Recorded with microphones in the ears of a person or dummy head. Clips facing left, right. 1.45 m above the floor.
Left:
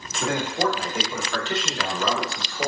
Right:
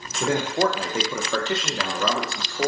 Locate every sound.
0.2 s a man speaking: 25° right (ahead or behind), 0.6 m; by 2.7 s 50° right (ahead or behind), 1.1 m